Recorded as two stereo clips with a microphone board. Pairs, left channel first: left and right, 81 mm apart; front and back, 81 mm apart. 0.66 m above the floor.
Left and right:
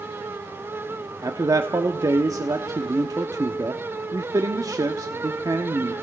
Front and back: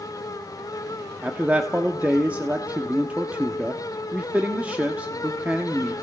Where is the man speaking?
110° right, 1.1 m.